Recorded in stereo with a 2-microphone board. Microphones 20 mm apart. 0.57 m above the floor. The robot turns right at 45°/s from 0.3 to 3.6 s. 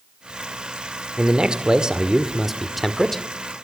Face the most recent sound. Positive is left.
turn(degrees=30)